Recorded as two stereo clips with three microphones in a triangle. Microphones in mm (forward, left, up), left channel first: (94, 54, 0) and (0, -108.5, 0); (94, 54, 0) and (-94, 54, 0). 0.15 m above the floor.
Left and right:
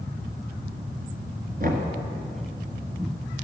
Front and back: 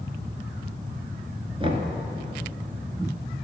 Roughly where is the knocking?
Behind right.